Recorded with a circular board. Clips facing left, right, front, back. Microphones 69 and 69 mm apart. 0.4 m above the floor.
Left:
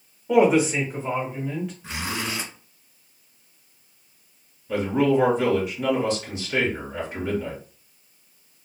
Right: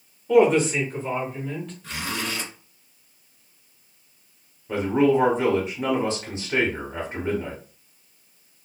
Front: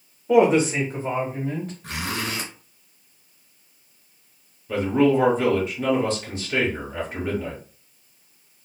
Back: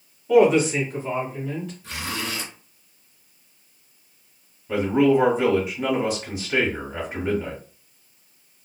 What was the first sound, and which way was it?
A woman speaking, 25° left.